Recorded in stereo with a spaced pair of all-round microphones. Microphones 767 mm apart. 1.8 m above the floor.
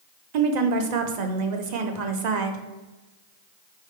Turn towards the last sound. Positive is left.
turn(degrees=-65)  # may be behind; listen again after turning